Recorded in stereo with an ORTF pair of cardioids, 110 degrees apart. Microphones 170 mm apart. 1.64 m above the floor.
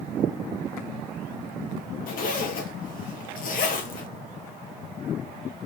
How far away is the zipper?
About 1.7 m.